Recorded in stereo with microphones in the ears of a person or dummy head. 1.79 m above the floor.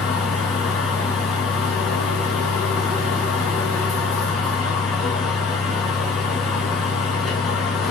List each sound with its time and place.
0.0 s a fan: centre (ahead or behind), 1.4 m